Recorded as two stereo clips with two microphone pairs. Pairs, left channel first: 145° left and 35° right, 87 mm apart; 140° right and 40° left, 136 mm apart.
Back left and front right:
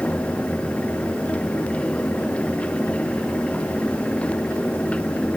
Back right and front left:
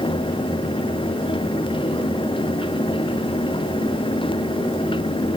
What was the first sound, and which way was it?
Only background noise.